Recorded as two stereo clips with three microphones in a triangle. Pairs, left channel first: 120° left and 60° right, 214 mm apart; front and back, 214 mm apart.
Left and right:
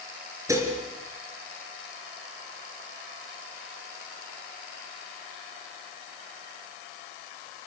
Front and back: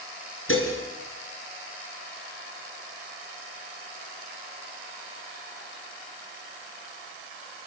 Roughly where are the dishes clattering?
Ahead.